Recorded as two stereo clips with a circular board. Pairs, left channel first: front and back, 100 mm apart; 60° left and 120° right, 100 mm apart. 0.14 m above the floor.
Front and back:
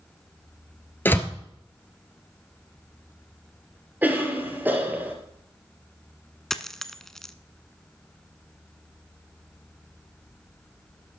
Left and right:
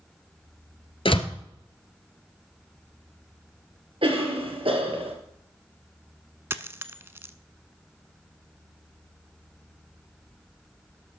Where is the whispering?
I don't hear whispering.